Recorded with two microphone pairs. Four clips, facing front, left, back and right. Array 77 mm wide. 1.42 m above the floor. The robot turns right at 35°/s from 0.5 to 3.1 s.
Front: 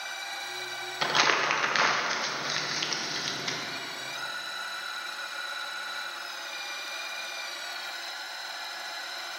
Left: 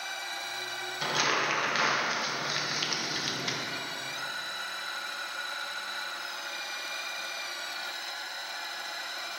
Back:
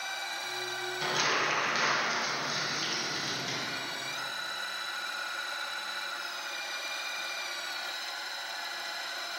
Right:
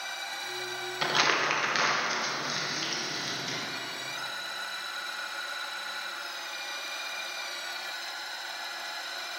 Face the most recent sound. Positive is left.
turn(degrees=45)